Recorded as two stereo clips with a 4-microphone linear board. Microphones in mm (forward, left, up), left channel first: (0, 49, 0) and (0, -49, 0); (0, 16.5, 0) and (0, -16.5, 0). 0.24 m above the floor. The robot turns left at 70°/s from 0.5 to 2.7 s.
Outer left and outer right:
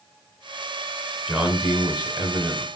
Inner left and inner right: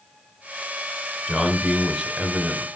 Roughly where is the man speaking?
Centre.